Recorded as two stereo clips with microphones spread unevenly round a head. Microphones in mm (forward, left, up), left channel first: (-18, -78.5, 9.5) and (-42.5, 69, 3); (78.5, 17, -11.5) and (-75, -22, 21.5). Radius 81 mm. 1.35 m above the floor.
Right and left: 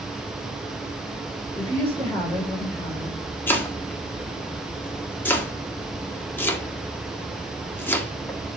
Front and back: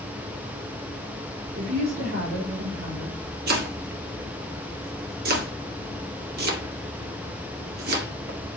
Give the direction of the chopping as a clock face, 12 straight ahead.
5 o'clock.